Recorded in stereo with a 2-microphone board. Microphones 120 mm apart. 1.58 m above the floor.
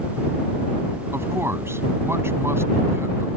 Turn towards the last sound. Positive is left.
turn(degrees=-20)  # may be behind; listen again after turning